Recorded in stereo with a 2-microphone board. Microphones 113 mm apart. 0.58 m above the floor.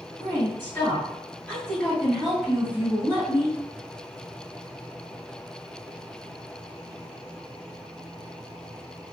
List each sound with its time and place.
0.2 s a woman speaking: 20° left (ahead or behind), 1.7 m; by 3.6 s 25° right (ahead or behind), 1.1 m